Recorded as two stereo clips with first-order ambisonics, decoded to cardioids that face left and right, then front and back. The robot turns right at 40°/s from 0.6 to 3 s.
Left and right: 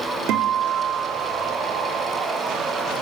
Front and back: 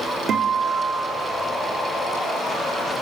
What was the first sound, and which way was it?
A guitar, 120° right.